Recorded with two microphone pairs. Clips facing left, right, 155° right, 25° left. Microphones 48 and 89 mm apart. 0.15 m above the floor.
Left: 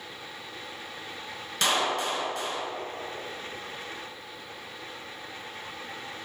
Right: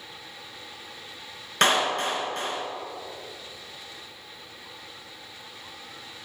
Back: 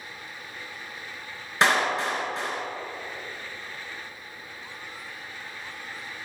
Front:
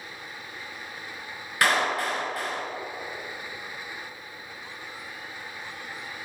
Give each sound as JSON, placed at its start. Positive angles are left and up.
{"t": 1.6, "sound": "a clap", "azimuth_deg": -95, "distance_m": 1.4}